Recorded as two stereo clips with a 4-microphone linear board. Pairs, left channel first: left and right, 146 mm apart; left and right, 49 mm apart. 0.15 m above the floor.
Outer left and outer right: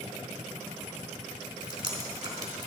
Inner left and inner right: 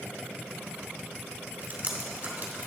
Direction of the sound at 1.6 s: 35° right (ahead or behind).